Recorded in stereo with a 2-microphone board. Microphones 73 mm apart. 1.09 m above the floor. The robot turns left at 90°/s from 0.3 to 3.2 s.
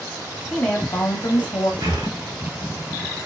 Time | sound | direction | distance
0.5 | a woman speaking | 175° left | 0.9 m
1.8 | breathing | 65° right (ahead or behind) | 0.9 m